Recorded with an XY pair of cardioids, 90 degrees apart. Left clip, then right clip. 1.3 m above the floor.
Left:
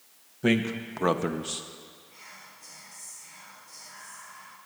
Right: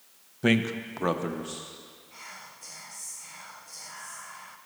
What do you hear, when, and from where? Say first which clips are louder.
0.4 s a man speaking: right 1 dB; 25° right, 0.9 m; by 1.6 s 65° left, 0.8 m
2.1 s whispering: right 5 dB; 50° right, 1.0 m